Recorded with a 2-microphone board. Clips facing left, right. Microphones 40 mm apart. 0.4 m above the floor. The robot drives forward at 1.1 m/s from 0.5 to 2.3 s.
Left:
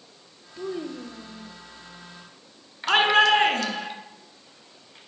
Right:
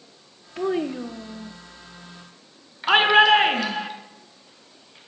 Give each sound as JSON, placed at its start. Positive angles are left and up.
{"t": 0.6, "sound": "a child speaking", "side_deg": -60, "distance_m": 0.8}
{"t": 2.9, "sound": "a shout", "side_deg": -15, "distance_m": 4.0}